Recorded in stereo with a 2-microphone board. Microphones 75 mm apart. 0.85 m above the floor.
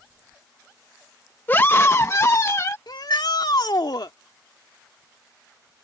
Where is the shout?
65° left (ahead or behind).